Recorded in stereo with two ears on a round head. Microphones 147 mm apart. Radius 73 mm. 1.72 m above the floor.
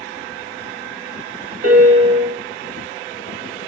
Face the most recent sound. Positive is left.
turn(degrees=-60)  # may be behind; listen again after turning